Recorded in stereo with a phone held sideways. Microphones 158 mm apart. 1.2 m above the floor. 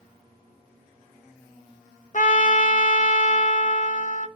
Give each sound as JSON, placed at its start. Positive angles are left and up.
{"t": 2.1, "sound": "a trumpet", "side_deg": 50, "distance_m": 0.6}